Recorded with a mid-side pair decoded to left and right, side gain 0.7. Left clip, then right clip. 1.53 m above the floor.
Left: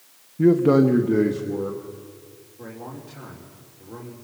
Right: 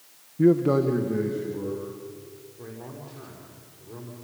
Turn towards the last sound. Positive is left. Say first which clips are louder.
# left 4 dB
turn(degrees=15)